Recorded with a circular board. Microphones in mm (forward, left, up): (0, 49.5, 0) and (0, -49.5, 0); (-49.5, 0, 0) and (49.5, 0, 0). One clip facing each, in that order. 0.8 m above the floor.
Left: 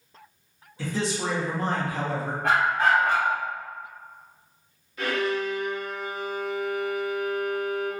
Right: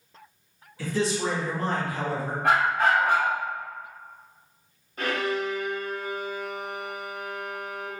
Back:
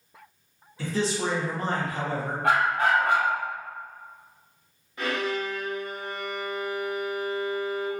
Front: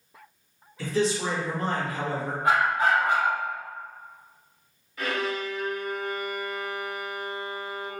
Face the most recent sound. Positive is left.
turn(degrees=-120)